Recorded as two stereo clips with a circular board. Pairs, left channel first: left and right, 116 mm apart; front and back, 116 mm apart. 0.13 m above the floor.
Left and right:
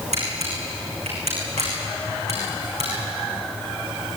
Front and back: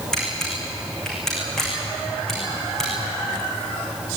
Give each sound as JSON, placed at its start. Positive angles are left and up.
{"t": 0.1, "sound": "a camera shutter", "azimuth_deg": -85, "distance_m": 8.0}